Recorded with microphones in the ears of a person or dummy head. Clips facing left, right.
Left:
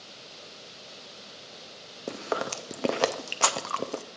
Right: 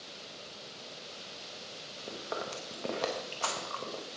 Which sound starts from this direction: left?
Chewing, at 2.1 s.